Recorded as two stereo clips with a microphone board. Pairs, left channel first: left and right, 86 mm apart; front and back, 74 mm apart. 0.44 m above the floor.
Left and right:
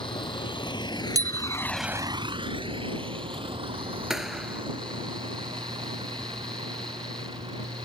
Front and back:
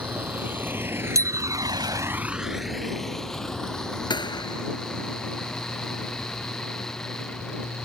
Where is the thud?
5° right.